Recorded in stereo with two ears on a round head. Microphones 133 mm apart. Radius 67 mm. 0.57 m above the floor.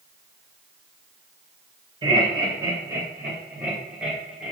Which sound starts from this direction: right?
Laughter, at 2.0 s.